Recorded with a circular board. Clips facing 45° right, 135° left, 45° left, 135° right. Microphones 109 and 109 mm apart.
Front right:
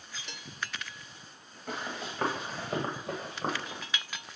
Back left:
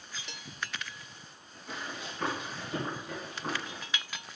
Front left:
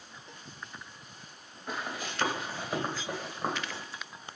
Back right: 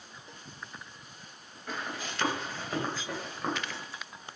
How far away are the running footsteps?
About 3.5 m.